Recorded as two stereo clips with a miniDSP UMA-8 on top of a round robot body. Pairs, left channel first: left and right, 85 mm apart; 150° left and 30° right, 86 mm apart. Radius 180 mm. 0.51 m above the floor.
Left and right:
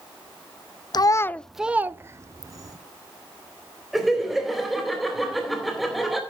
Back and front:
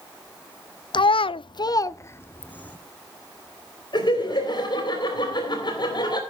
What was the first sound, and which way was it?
A child speaking, 125° left.